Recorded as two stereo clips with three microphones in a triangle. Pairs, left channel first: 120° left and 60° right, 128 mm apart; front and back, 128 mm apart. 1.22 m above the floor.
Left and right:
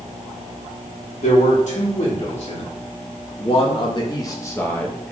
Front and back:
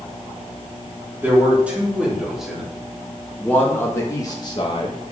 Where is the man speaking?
105° left, 3.5 m; by 5.1 s 35° left, 1.8 m.